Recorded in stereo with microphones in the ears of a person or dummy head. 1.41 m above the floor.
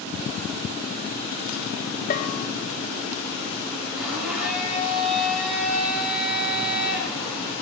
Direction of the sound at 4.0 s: Centre (ahead or behind).